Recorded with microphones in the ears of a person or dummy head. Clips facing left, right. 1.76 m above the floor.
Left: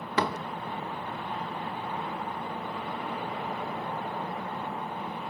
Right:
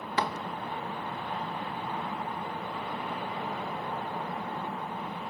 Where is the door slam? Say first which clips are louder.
Left 3 dB; 65° left (ahead or behind).